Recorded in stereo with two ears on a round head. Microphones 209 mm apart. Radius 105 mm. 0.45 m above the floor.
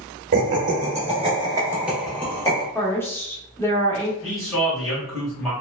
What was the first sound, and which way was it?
Laughter, 40° right (ahead or behind).